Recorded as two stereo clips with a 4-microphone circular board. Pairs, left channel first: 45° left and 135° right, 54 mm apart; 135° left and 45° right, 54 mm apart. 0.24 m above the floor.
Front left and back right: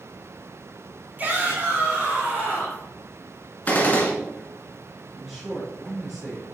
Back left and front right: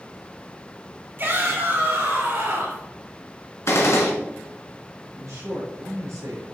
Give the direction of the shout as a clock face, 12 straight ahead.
3 o'clock.